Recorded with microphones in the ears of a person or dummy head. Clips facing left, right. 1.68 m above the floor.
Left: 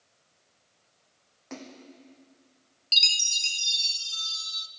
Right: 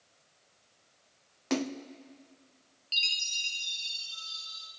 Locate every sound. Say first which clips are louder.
1.5 s a splash: right 11 dB; 70° right (ahead or behind), 0.8 m
2.9 s a chime: left 4 dB; 55° left (ahead or behind), 1.3 m